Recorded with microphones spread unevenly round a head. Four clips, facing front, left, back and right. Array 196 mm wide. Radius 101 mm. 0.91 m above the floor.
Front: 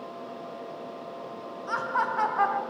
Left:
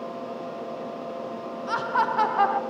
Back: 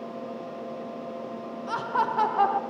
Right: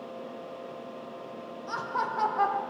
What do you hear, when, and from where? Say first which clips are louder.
1.7 s laughter: left 7 dB, back 1 dB; 165° left, 0.9 m